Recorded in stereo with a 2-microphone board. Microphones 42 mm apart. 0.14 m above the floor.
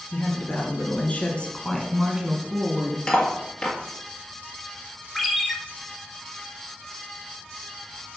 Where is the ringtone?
5° left (ahead or behind), 1.4 m.